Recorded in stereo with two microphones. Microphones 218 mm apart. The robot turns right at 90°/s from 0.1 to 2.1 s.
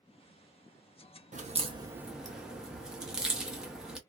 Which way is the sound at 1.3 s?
35° right (ahead or behind).